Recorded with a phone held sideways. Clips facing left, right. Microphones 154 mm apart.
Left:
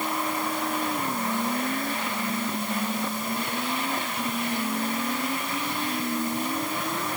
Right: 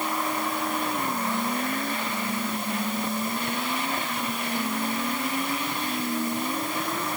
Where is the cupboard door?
I don't hear a cupboard door.